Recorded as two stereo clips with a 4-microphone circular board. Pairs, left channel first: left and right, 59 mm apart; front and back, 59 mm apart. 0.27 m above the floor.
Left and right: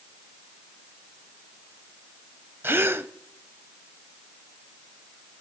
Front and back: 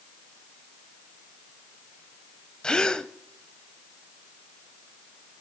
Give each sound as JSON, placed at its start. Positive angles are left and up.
{"t": 2.6, "sound": "a gasp", "azimuth_deg": -70, "distance_m": 0.5}